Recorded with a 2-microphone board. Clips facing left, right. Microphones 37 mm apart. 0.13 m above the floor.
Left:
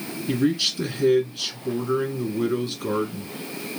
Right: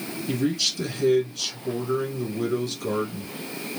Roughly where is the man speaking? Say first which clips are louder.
Left 3 dB; left.